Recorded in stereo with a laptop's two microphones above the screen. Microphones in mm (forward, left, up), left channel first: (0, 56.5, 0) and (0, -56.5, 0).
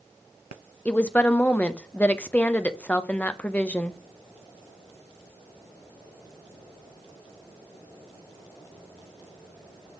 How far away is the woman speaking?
About 0.5 m.